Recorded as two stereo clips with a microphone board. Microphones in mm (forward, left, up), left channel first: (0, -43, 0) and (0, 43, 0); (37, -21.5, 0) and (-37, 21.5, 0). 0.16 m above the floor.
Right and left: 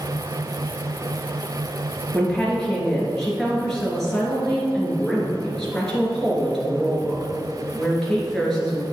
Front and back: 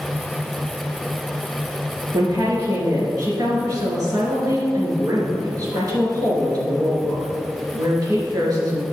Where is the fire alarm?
I don't hear a fire alarm.